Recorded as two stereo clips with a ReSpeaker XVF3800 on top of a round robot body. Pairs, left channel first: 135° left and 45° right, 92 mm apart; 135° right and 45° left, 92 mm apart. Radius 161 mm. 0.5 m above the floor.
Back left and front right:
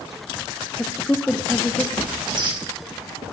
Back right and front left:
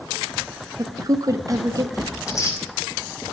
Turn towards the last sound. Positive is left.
turn(degrees=-80)